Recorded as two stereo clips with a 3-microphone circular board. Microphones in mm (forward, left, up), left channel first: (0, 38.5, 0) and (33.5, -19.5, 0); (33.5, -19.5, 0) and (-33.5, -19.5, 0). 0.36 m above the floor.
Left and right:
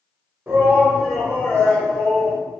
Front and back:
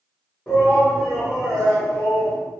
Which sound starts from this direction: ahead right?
A shout, at 0.5 s.